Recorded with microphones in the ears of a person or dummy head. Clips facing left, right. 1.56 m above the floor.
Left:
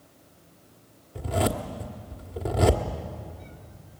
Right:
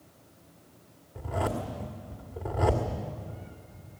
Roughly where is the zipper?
Left.